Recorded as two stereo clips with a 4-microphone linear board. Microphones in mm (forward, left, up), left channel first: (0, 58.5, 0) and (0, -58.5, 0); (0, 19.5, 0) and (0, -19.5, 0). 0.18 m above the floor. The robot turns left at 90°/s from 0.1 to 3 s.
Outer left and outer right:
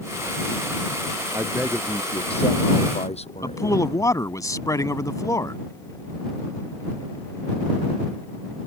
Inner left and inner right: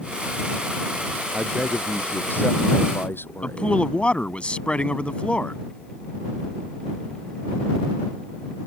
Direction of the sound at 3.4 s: 30° left (ahead or behind).